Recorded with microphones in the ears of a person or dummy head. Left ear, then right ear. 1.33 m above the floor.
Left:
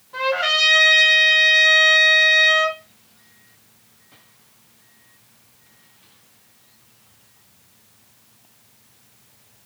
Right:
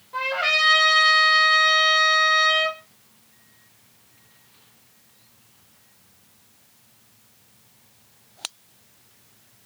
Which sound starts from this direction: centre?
A trumpet, at 0.1 s.